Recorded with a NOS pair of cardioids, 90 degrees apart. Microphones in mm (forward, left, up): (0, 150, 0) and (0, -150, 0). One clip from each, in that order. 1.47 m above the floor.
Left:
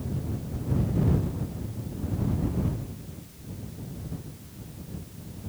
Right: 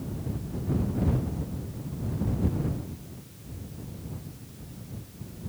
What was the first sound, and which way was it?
Only background noise.